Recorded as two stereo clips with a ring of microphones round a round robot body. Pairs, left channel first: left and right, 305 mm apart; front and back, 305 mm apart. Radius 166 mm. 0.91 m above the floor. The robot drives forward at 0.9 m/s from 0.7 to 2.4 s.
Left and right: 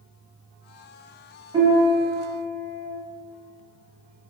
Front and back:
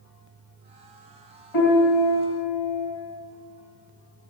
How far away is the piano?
About 4 m.